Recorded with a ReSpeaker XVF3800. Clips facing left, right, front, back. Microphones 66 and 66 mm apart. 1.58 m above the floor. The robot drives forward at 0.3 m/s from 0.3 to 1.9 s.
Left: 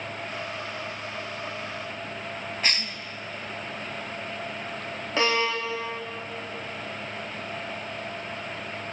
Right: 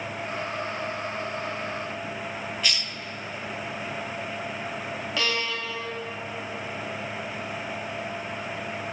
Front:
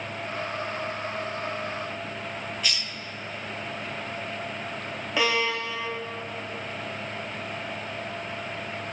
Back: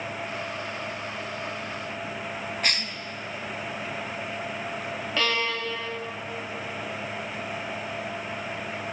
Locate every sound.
2.6 s a cough: 140° left, 0.6 m
5.2 s a violin: 65° left, 1.1 m